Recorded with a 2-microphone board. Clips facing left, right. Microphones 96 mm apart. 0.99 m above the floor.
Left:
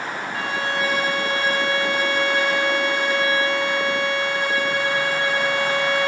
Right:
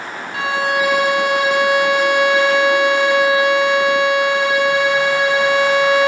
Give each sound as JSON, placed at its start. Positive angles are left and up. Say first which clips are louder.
{"t": 0.3, "sound": "a violin", "louder": "right 8 dB", "side_deg": -70, "distance_m": 0.8}